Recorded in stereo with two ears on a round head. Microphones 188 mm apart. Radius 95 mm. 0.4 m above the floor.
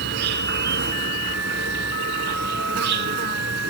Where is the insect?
50° right (ahead or behind), 0.9 m.